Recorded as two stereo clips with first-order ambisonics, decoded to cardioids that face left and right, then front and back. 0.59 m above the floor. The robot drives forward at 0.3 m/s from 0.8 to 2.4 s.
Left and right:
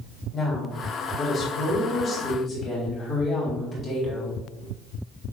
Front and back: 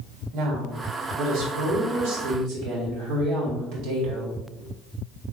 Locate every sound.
0.3 s a woman speaking: 160° left, 1.7 m; by 4.4 s 165° left, 2 m